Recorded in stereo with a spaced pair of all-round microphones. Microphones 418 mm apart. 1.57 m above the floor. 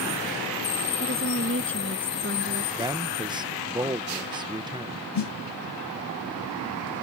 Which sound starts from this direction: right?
A woman speaking, at 1.0 s.